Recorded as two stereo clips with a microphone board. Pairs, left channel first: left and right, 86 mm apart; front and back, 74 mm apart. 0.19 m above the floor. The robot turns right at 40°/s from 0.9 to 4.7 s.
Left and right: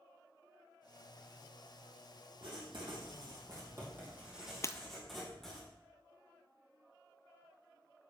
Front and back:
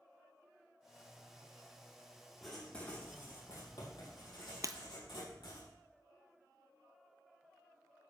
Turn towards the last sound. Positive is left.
turn(degrees=145)